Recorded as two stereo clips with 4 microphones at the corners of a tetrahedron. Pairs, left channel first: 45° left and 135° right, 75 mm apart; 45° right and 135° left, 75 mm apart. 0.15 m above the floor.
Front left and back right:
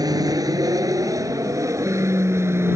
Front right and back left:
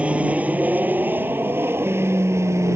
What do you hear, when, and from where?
0.0 s an aircraft: 155° right; by 2.8 s 175° left